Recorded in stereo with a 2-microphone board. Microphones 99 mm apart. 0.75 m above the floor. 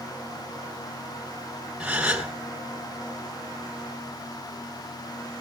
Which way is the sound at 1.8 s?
10° right (ahead or behind).